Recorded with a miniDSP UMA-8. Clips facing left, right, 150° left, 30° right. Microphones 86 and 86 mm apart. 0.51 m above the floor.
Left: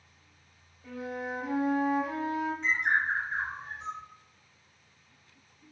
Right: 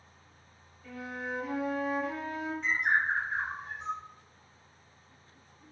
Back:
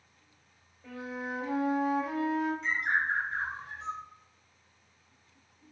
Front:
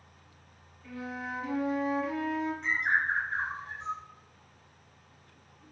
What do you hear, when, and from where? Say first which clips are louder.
0.8 s a flute: left 2 dB, even; 145° left, 0.9 m
2.6 s a bird: right 2 dB, front 1 dB; 5° right, 1.0 m